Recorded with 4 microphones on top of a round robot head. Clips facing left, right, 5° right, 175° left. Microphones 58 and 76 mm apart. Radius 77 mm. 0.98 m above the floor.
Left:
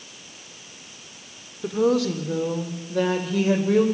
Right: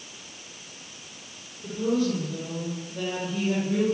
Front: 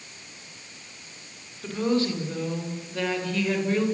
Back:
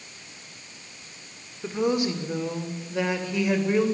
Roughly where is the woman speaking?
Left.